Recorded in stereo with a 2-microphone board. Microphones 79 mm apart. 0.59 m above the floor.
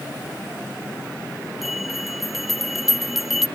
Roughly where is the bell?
Centre.